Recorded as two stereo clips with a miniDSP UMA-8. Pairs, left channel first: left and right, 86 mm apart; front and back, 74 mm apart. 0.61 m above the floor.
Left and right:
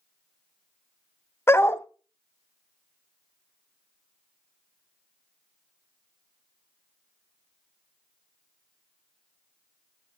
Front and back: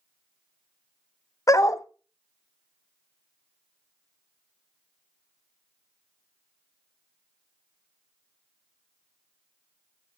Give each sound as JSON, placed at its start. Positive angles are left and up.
{"t": 1.5, "sound": "a dog barking", "azimuth_deg": 30, "distance_m": 0.7}